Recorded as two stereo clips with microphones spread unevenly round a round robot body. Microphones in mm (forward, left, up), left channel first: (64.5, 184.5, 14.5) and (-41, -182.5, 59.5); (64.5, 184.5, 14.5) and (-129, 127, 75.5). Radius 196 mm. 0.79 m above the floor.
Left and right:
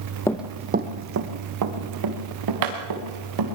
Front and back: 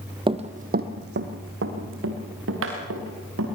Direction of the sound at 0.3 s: 160° left.